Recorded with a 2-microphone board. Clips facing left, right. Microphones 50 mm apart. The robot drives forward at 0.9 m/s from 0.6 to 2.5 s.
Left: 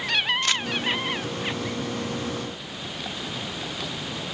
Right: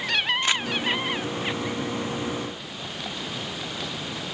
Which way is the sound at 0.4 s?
15° right (ahead or behind).